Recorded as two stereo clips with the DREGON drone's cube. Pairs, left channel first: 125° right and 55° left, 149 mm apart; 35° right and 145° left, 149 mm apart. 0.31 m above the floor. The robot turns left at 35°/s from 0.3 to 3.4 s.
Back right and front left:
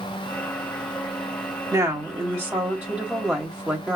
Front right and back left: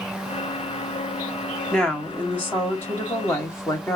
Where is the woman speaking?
35° left, 1.3 m; by 4.0 s 20° right, 1.3 m.